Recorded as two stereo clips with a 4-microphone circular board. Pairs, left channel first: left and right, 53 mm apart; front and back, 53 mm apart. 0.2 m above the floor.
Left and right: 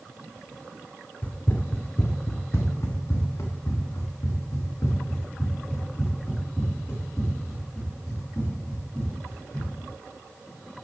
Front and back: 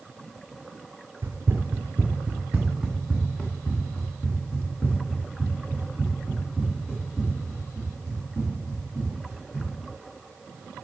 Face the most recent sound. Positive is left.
turn(degrees=45)